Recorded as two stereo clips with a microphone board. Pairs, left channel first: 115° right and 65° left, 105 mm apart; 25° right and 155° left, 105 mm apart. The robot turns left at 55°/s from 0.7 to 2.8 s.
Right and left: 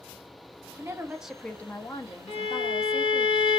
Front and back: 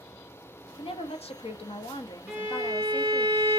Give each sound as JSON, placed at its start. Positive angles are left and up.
{"t": 0.8, "sound": "a woman speaking", "azimuth_deg": 10, "distance_m": 0.6}
{"t": 2.3, "sound": "a violin", "azimuth_deg": -125, "distance_m": 1.1}